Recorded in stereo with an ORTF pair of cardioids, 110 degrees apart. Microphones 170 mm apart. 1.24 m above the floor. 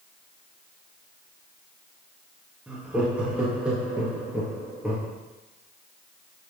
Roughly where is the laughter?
Ahead.